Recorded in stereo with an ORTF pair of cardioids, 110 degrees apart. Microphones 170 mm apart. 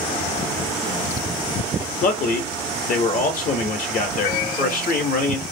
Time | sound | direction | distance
2.0 | a man speaking | 55° left | 0.7 m